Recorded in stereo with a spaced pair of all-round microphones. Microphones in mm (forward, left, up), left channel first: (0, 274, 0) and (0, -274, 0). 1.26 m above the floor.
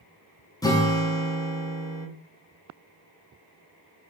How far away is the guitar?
About 0.5 m.